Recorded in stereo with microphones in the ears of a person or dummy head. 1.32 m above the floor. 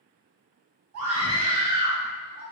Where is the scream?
80° right, 1.1 m; by 2.4 s 70° right (ahead or behind), 2.0 m.